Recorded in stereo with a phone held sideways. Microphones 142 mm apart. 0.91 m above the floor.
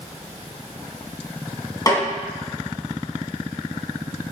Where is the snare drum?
25° left (ahead or behind), 1.9 m.